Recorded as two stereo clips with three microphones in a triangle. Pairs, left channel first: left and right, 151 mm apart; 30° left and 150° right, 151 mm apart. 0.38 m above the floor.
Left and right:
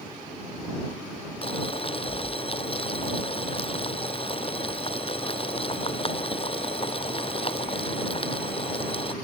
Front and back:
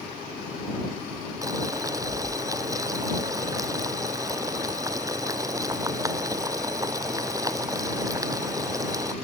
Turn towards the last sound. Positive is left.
turn(degrees=140)